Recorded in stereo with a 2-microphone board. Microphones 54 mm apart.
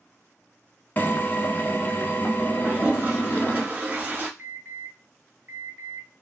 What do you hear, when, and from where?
1.0 s a drill: 35° left (ahead or behind), 0.5 m
2.6 s a toilet flushing: 35° right (ahead or behind), 1.0 m
4.4 s an alarm: 40° right (ahead or behind), 1.2 m